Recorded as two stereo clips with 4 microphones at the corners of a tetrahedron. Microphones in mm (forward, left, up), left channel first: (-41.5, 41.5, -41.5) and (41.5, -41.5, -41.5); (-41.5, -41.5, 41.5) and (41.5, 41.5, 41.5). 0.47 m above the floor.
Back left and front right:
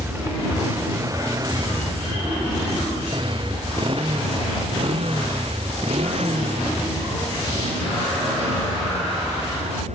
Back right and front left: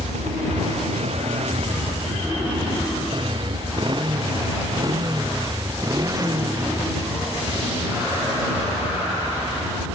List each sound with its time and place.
0.0 s a motorcycle: 30° left; by 10.0 s 25° right